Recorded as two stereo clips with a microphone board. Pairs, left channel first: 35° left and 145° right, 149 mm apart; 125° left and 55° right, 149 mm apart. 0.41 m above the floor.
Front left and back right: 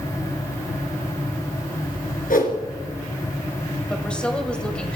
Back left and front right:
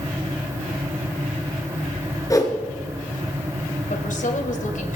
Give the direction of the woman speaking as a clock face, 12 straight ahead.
8 o'clock.